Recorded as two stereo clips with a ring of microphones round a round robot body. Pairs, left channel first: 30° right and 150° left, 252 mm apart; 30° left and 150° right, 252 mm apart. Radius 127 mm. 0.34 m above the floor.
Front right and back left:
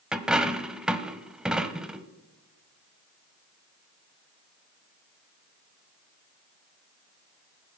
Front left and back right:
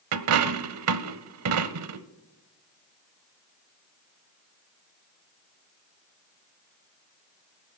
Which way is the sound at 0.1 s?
125° right.